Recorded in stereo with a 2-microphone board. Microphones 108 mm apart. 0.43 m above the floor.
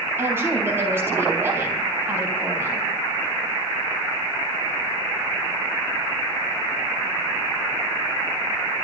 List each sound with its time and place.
0.2 s a woman speaking: 20° right (ahead or behind), 3.5 m